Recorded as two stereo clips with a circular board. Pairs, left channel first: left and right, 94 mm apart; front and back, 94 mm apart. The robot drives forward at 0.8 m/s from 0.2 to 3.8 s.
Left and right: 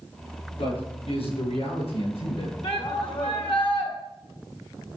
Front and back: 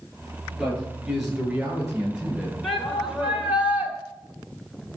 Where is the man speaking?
90° left, 9 m; by 2.5 s 100° left, 9.5 m.